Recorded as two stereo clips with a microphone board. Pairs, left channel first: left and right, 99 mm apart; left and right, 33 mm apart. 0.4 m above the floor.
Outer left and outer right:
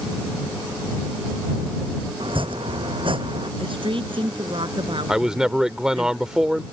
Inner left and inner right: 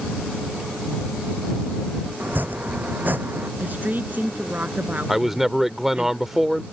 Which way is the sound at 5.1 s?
5° right (ahead or behind).